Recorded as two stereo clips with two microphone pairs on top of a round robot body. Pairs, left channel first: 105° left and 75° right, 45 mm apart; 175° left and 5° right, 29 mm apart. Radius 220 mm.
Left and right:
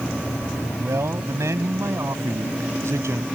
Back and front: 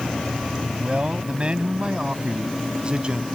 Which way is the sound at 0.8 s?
60° right.